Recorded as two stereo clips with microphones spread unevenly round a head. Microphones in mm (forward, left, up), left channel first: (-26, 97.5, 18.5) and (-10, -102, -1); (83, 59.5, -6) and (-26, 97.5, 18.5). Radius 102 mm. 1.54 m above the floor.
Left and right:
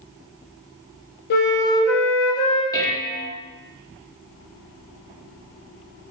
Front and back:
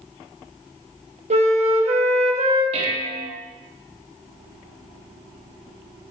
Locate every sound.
1.3 s a flute: 135° left, 1.7 m
2.7 s dishes clattering: 165° left, 1.2 m